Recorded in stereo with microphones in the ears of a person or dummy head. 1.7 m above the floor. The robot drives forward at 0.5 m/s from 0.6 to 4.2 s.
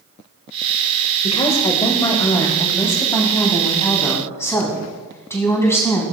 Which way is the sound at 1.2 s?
30° left (ahead or behind).